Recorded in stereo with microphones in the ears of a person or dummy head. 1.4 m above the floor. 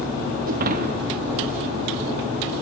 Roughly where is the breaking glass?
Right.